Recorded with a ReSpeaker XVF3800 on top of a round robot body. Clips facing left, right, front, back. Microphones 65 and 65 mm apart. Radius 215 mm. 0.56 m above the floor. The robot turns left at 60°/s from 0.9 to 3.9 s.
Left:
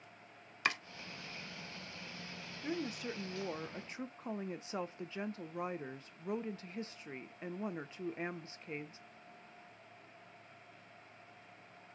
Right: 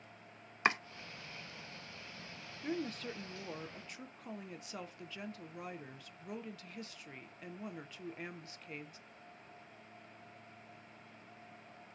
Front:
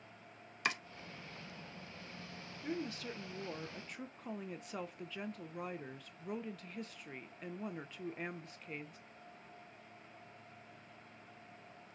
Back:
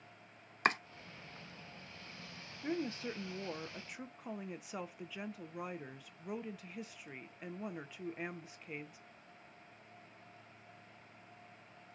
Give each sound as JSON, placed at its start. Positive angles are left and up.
{"t": 0.7, "sound": "chopping", "azimuth_deg": -145, "distance_m": 0.6}
{"t": 2.6, "sound": "a woman speaking", "azimuth_deg": 180, "distance_m": 0.6}